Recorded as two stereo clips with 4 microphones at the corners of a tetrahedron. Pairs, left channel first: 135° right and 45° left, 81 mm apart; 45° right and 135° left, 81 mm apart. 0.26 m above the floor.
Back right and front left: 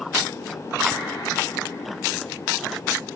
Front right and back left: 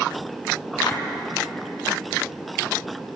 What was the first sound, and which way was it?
A clap, 35° right.